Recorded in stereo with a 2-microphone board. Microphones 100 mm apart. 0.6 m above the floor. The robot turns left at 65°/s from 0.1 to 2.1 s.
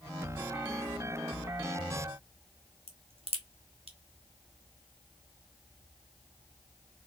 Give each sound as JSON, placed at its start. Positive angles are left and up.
{"t": 2.9, "sound": "a crack", "side_deg": -70, "distance_m": 0.7}